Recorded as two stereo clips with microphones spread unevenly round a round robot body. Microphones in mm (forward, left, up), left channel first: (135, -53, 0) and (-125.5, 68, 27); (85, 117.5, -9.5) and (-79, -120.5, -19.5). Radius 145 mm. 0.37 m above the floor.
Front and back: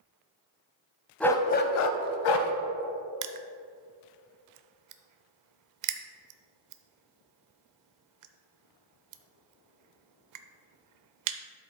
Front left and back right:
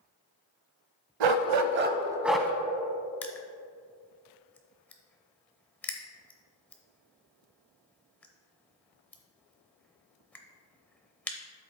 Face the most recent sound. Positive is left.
turn(degrees=140)